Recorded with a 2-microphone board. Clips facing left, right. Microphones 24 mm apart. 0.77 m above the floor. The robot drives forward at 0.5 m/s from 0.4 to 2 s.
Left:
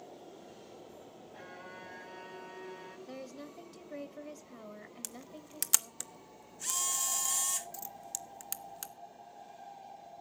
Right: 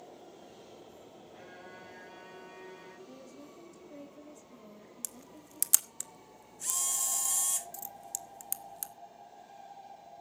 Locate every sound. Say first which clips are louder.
1.3 s a violin: left 2 dB; 10° left (ahead or behind), 3.5 m
3.1 s a woman speaking: left 4 dB; 55° left (ahead or behind), 1.3 m
5.0 s a camera shutter: right 1 dB; 15° left (ahead or behind), 0.9 m